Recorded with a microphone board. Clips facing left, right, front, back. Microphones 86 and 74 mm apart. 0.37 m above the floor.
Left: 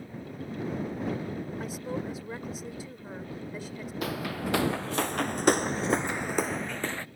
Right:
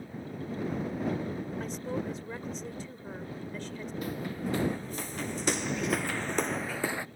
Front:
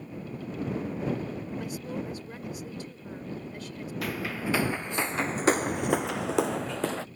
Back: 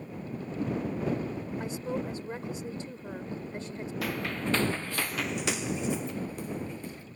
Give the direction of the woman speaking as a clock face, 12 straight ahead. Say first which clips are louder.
Even, back 2 dB; 7 o'clock.